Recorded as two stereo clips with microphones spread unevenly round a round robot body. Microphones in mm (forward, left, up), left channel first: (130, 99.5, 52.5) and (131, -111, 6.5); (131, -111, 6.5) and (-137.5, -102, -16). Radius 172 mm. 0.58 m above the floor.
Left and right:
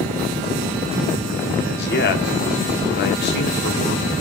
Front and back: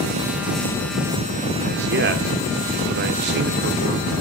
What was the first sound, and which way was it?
A man speaking, 140° left.